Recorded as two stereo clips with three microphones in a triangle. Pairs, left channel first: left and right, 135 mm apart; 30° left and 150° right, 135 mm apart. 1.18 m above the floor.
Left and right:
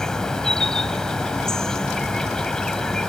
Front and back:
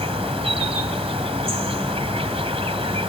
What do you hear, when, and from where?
0.0 s an insect: 175° left